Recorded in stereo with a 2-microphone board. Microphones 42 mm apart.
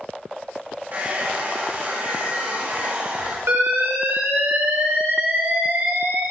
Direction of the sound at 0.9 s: 40° right (ahead or behind).